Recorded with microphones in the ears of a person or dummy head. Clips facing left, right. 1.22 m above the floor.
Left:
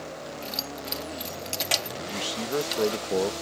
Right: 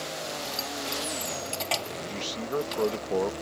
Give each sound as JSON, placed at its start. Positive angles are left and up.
{"t": 0.4, "sound": "keys jangling", "side_deg": 20}
{"t": 2.0, "sound": "a man speaking", "side_deg": 10}